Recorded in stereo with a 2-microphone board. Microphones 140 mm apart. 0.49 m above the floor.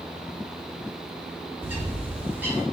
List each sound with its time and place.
1.6 s a bird: 15° right (ahead or behind), 0.9 m